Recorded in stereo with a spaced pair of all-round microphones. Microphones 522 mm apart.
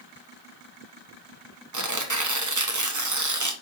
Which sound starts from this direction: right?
Tearing paper, at 1.7 s.